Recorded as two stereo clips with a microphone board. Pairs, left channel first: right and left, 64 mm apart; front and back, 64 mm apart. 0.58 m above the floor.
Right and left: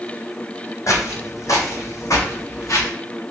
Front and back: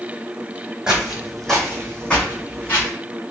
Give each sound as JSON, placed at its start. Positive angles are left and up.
{"t": 0.9, "sound": "footsteps", "azimuth_deg": -100, "distance_m": 1.1}